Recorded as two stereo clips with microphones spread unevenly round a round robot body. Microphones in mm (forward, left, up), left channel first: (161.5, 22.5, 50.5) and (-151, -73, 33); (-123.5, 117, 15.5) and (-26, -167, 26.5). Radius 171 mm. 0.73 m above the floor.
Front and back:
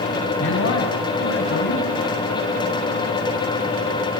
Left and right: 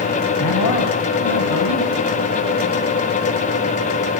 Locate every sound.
0.4 s a man speaking: 70° left, 4 m